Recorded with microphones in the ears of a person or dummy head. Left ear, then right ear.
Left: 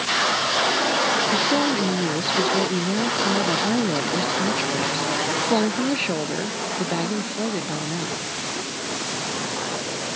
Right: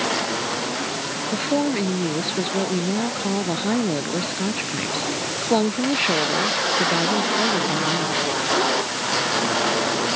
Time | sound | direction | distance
1.3 | a woman speaking | 5° right (ahead or behind) | ?